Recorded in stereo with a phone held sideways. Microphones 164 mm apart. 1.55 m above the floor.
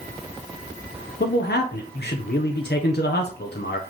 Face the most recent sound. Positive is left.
turn(degrees=75)  # may be behind; listen again after turning